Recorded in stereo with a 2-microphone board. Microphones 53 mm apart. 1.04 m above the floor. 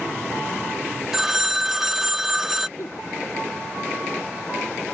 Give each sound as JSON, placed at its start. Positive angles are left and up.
{"t": 1.1, "sound": "a phone ringing", "side_deg": -5}
{"t": 2.8, "sound": "a giggle", "side_deg": 60}